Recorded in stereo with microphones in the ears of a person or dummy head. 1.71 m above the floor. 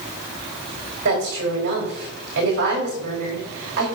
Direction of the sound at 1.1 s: 50° right (ahead or behind).